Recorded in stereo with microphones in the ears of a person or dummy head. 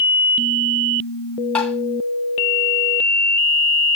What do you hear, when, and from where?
1.6 s tapping: 5° left (ahead or behind), 1.9 m